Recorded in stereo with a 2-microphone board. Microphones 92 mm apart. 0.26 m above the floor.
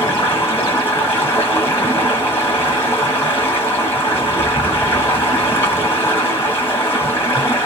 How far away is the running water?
About 1.4 m.